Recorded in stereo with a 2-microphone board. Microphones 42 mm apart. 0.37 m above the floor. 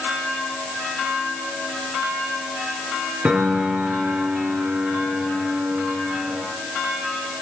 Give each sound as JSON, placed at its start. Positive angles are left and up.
{"t": 3.2, "sound": "a piano", "side_deg": -40, "distance_m": 5.0}